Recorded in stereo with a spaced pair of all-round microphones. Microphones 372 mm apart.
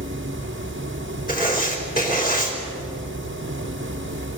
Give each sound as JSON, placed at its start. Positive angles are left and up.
{"t": 0.0, "sound": "a fan", "side_deg": -30, "distance_m": 1.4}
{"t": 1.3, "sound": "writing", "side_deg": 25, "distance_m": 4.0}